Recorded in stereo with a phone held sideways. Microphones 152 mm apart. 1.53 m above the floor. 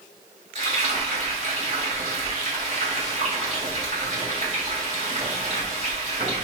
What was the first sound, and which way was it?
Frying, 45° right (ahead or behind).